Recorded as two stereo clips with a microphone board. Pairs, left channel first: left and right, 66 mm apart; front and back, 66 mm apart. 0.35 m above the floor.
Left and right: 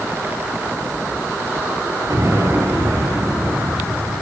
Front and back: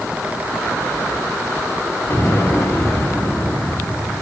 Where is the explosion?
50° right, 6 m.